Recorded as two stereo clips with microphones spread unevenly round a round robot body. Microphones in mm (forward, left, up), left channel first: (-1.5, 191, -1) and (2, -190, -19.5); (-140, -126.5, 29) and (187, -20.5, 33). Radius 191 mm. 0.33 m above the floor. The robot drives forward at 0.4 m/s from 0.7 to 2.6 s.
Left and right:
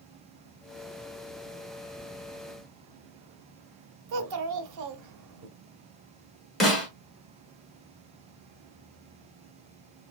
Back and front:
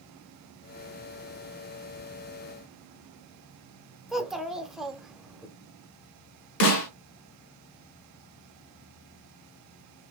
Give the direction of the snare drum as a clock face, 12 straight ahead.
6 o'clock.